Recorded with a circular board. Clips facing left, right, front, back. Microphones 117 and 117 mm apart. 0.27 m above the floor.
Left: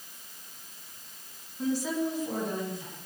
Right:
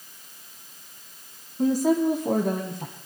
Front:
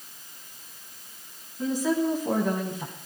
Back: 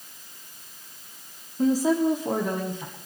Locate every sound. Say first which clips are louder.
1.6 s a woman speaking: right 8 dB, back 4 dB; 135° right, 2.0 m; by 2.9 s 70° right, 2.0 m